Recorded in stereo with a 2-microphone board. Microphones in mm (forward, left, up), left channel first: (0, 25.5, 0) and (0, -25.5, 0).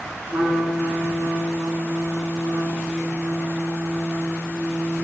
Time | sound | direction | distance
0.3 | a trumpet | 40° right (ahead or behind) | 8 m